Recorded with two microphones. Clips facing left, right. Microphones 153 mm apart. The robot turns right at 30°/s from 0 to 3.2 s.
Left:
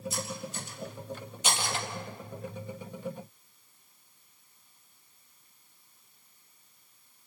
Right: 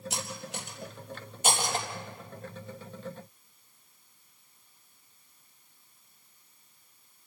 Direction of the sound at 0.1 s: 80° right.